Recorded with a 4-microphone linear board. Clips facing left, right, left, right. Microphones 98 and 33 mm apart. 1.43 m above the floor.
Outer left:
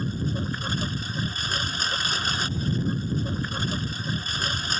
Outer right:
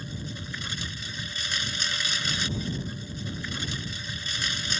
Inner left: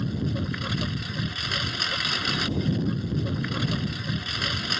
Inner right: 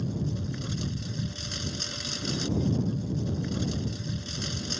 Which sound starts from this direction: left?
A lawn mower, at 0.0 s.